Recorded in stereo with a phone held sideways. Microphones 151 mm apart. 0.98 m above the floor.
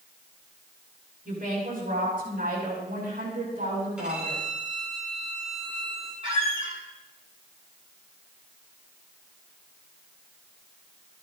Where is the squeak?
35° right (ahead or behind), 3 m.